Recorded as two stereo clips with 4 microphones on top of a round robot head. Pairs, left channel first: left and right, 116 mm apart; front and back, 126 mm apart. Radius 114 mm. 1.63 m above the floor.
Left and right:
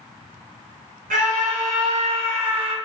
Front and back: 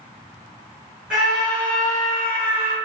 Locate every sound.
1.1 s a scream: 95° right, 1.5 m; by 2.8 s 45° right, 1.3 m